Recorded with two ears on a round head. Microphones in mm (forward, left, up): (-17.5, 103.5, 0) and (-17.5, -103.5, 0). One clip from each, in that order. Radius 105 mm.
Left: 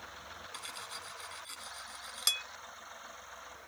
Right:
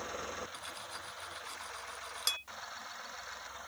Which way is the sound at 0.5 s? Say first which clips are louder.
Left 1 dB; 25° left (ahead or behind).